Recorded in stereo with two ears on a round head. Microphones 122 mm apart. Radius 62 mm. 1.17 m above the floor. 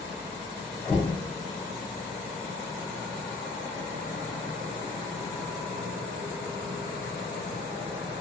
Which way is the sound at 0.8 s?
10° left (ahead or behind).